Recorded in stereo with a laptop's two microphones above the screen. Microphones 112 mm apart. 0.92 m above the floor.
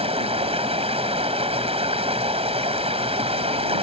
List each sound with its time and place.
0.0 s running water: 60° right (ahead or behind)